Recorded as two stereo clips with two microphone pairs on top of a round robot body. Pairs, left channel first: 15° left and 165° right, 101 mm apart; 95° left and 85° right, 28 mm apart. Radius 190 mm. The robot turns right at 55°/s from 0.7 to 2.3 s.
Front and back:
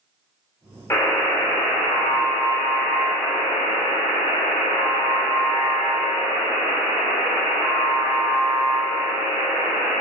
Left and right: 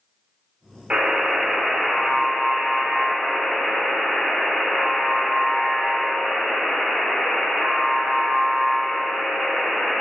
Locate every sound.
0.9 s a buzzer: 50° right, 0.6 m; by 10.0 s 25° left, 0.6 m